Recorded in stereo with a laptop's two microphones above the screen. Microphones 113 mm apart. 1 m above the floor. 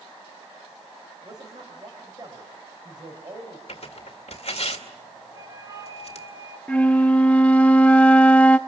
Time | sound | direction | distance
1.2 | a man speaking | 40° right (ahead or behind) | 4.5 m
3.7 | tearing paper | 65° left (ahead or behind) | 2 m
5.3 | a flute | 30° right (ahead or behind) | 2 m
6.7 | a flute | 10° left (ahead or behind) | 0.7 m